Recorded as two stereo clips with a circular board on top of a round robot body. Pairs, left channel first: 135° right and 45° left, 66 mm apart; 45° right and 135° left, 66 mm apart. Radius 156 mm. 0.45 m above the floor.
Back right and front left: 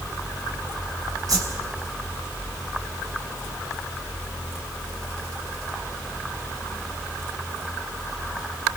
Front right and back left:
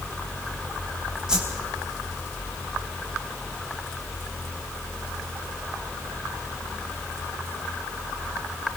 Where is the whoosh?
55° left, 4.5 m.